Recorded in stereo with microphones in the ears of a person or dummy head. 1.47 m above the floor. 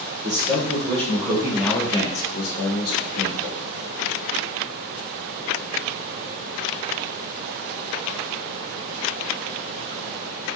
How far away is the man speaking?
About 1.3 m.